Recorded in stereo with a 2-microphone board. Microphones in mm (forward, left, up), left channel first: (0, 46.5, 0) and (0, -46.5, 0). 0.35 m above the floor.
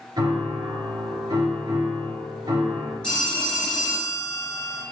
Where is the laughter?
I don't hear laughter.